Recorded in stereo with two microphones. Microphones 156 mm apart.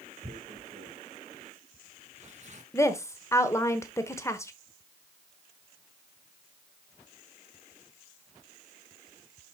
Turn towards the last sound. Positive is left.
turn(degrees=20)  # may be behind; listen again after turning